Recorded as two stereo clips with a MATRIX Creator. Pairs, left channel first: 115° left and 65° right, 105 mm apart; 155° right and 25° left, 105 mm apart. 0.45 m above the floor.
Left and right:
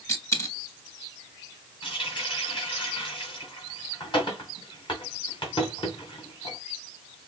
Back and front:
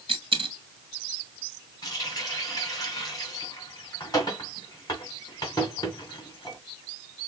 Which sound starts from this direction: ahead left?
A dropped coin, at 0.1 s.